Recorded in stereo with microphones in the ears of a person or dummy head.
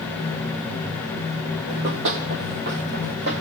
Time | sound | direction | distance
1.7 | running footsteps | 60° right (ahead or behind) | 2.5 m